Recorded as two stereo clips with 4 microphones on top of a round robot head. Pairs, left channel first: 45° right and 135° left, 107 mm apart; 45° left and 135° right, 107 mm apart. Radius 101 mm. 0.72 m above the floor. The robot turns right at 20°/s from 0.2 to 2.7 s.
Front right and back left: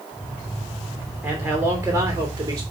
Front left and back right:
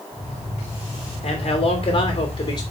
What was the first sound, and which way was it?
A man speaking, 50° left.